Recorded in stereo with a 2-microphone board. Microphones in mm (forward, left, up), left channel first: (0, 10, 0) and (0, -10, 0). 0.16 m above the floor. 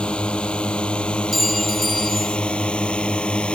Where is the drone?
65° left (ahead or behind); by 3.6 s 70° left (ahead or behind).